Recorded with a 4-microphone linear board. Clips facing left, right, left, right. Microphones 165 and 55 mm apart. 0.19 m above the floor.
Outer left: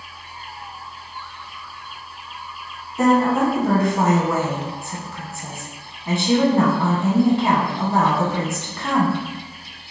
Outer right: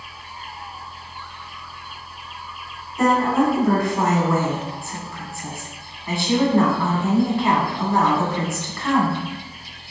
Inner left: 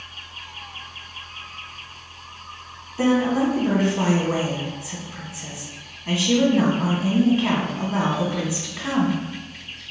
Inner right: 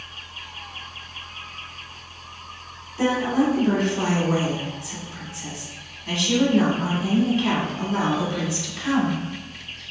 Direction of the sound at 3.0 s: 20° left (ahead or behind).